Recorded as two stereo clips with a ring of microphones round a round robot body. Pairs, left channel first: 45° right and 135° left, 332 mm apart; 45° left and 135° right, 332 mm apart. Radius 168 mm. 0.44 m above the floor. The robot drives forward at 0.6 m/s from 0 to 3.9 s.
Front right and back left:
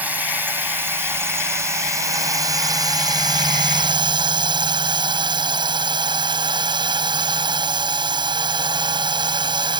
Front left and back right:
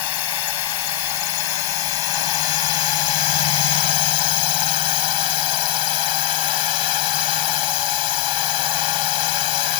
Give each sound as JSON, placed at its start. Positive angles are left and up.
{"t": 0.0, "sound": "a drone", "azimuth_deg": 50}